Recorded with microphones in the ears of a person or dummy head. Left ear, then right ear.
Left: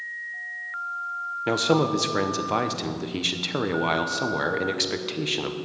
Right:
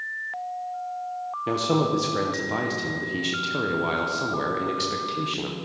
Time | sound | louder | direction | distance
1.5 | a man speaking | left 2 dB | 35° left (ahead or behind) | 0.7 m